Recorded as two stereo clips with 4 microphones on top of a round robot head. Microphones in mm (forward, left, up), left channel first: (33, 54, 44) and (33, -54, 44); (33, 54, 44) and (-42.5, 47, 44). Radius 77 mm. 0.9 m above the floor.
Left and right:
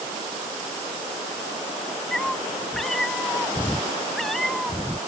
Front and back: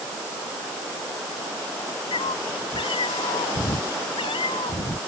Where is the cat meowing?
5° left; by 5.0 s straight ahead.